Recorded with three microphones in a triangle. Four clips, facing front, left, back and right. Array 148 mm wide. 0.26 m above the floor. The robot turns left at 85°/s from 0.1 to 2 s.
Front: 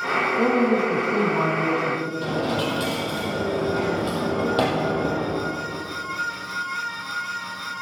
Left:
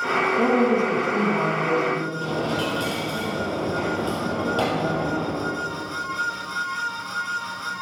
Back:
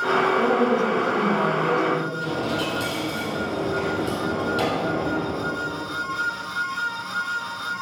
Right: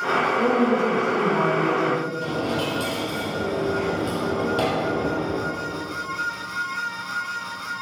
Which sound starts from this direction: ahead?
A dropped coin, at 2.2 s.